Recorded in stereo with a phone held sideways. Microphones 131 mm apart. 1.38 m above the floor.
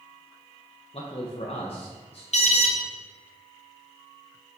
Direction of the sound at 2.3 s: 60° left (ahead or behind).